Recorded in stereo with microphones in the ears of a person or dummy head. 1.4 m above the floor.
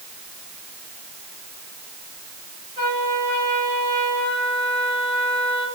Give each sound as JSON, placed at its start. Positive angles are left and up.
{"t": 2.8, "sound": "a trumpet", "side_deg": -40, "distance_m": 9.0}